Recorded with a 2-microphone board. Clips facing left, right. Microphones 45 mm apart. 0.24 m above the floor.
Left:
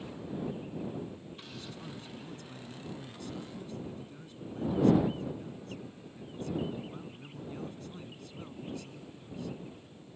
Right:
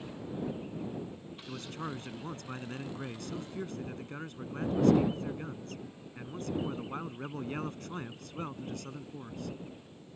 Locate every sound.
1.5 s a man speaking: 60° right (ahead or behind)